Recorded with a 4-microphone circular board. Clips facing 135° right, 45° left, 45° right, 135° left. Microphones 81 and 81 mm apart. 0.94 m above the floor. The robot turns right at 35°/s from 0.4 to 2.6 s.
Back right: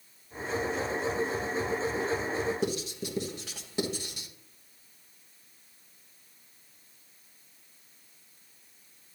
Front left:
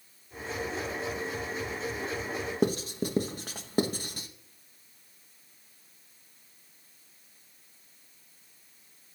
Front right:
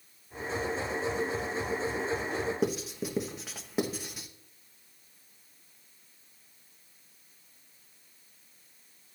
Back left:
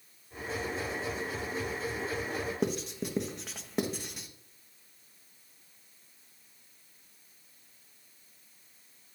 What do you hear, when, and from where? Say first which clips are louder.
2.6 s writing: front left 4 dB, front right 1 dB; 45° left, 1.2 m